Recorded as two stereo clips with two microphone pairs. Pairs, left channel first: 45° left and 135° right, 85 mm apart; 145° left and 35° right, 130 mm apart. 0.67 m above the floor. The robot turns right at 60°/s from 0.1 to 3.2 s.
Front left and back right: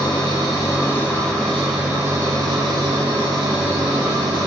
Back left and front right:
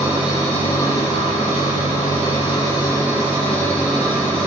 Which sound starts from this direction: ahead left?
An engine running, at 0.0 s.